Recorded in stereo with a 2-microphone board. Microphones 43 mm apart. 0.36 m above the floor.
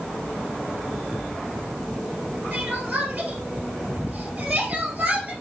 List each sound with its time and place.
2.5 s crying: 40° right (ahead or behind), 2 m